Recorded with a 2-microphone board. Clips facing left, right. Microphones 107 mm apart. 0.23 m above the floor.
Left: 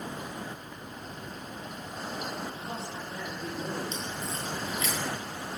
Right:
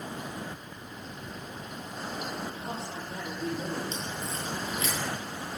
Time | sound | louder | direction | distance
2.5 | a man speaking | right 1 dB | 35° right (ahead or behind) | 8 m
3.9 | a crack | even | 35° right (ahead or behind) | 4.5 m